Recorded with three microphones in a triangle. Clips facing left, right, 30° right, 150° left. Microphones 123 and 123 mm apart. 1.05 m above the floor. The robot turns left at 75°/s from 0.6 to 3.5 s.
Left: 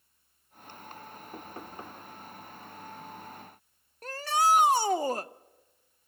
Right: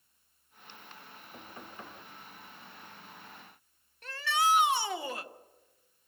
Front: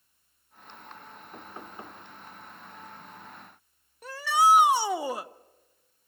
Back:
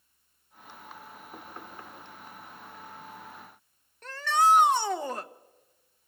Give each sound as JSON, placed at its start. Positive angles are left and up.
{"t": 1.3, "sound": "knocking", "azimuth_deg": 70, "distance_m": 2.0}
{"t": 4.0, "sound": "a shout", "azimuth_deg": 50, "distance_m": 0.6}